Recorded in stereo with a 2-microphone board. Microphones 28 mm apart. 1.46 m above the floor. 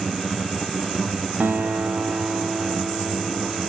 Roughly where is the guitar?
Right.